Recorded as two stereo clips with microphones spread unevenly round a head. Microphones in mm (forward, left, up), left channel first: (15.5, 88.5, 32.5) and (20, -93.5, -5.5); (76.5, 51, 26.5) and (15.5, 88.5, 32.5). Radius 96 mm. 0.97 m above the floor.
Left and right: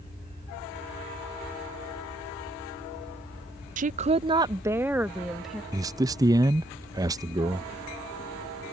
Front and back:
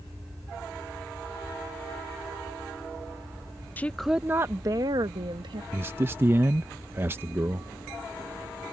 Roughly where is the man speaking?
Behind right.